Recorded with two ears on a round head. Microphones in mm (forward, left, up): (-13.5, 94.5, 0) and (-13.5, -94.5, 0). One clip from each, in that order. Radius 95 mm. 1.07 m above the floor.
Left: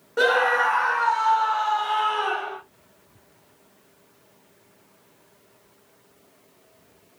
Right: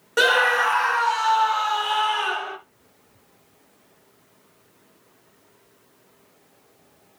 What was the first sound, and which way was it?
A scream, 70° right (ahead or behind).